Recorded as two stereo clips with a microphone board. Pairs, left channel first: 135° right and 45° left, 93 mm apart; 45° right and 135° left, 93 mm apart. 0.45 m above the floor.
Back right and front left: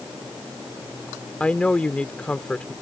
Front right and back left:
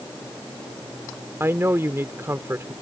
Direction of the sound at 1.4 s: 160° left.